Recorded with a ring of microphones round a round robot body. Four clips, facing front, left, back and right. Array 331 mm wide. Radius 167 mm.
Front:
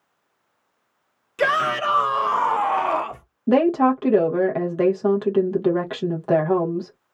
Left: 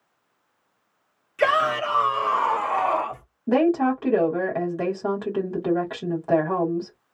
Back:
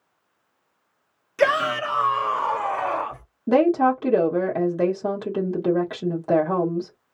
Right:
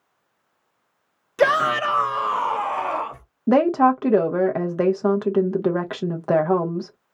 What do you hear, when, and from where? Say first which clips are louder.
1.4 s a shout: right 2 dB, even; 100° right, 0.6 m; by 3.2 s 5° left, 1.1 m
3.5 s a woman speaking: right 3 dB, front 1 dB; 75° right, 0.9 m